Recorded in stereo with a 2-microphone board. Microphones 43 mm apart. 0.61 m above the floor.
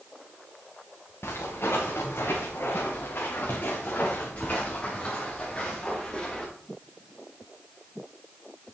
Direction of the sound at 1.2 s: 75° left (ahead or behind).